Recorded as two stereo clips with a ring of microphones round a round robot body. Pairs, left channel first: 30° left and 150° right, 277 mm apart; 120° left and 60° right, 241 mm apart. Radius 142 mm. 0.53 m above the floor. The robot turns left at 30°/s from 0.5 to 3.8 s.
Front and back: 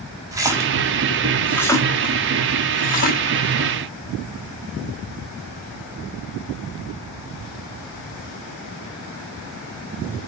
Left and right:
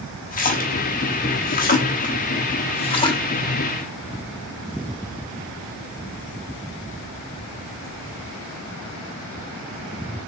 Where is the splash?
140° left, 0.9 m; by 3.2 s 60° left, 0.9 m.